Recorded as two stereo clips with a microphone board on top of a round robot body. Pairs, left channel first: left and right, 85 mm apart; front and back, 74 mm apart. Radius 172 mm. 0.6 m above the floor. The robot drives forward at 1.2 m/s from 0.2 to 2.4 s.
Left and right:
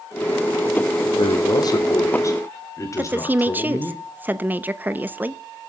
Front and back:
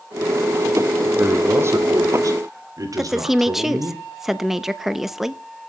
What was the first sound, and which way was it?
A man speaking, 115° left.